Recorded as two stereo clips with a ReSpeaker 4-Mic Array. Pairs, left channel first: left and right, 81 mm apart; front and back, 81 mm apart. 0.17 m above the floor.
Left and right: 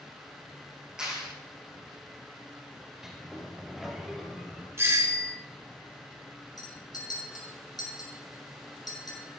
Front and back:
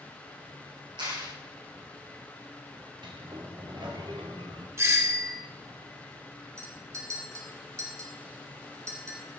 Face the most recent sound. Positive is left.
turn(degrees=125)